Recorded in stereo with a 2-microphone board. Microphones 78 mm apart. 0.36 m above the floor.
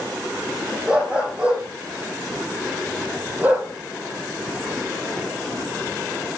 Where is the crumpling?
No crumpling in this recording.